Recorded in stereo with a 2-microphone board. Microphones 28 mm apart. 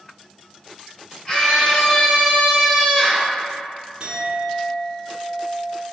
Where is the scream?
15° left (ahead or behind), 1.9 m.